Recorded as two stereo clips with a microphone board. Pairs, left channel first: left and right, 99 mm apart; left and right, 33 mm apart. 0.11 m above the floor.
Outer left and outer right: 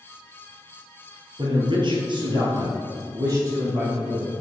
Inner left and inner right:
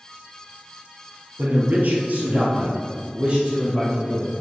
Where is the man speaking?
50° right (ahead or behind), 2.5 m; by 4.3 s 30° right (ahead or behind), 4.5 m.